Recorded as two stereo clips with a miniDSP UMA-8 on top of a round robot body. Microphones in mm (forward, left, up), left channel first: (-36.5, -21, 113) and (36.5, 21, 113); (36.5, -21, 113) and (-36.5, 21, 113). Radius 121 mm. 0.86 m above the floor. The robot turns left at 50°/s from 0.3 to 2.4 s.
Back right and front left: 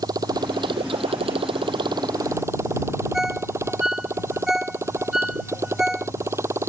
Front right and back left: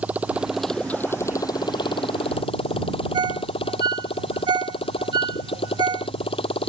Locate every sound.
0.0 s a motorcycle: 75° left; by 6.7 s 30° right
3.1 s a ringtone: 115° left